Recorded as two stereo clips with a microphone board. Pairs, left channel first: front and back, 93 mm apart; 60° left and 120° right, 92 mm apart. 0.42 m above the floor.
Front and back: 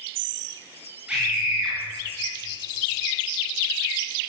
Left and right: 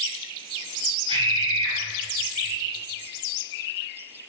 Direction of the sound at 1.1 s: 100° right.